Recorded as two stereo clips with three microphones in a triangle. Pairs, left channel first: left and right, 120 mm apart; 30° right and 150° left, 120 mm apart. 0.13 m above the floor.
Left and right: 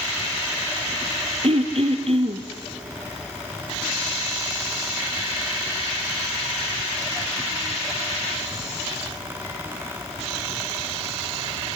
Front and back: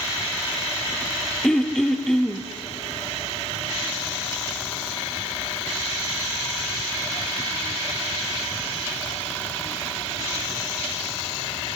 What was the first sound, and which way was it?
Throat clearing, 115° right.